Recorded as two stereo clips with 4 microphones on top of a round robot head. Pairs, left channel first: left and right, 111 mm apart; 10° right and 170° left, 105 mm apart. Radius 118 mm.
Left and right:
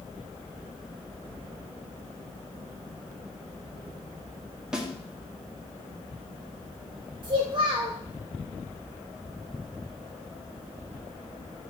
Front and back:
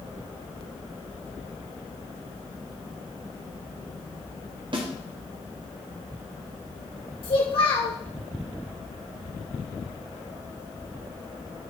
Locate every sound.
4.7 s a snare drum: 175° right, 1.6 m
7.2 s a child speaking: 45° right, 2.0 m